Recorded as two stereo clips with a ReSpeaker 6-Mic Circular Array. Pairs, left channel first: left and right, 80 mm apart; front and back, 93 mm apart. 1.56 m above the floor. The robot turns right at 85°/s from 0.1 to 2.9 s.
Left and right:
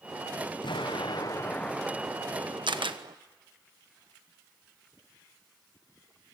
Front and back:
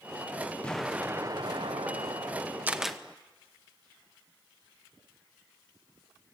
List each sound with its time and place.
0.6 s an explosion: 75° left, 0.7 m; by 3.1 s 90° right, 0.7 m
2.7 s a camera shutter: 110° right, 1.2 m; by 3.0 s 90° right, 1.2 m